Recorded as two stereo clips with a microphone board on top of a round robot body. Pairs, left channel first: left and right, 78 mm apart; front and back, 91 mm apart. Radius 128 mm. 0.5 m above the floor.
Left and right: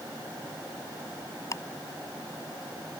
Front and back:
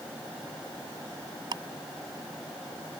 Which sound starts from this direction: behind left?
Ticking, at 1.5 s.